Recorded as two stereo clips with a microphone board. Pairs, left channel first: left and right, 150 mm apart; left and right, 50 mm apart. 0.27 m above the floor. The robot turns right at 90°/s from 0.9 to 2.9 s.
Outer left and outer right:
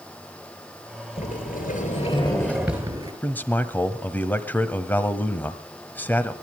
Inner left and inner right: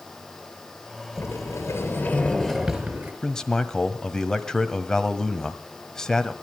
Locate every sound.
1.2 s a sliding door: 50° left, 4 m; by 3.1 s 155° right, 4 m
3.2 s a man speaking: 15° left (ahead or behind), 1.5 m